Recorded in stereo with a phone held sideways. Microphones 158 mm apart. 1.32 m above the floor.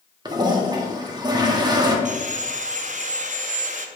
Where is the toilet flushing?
25° right (ahead or behind), 1.3 m.